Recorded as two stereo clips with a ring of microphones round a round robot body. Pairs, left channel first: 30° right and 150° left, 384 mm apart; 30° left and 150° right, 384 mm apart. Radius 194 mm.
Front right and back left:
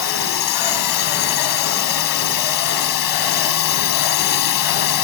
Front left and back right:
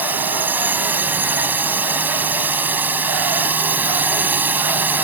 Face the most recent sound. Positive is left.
turn(degrees=-65)